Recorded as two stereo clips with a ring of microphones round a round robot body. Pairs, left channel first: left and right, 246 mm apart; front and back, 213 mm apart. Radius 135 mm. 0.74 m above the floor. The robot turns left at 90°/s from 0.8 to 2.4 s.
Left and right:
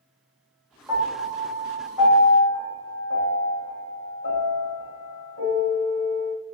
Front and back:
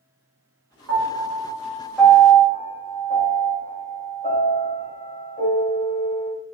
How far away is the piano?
About 1.2 m.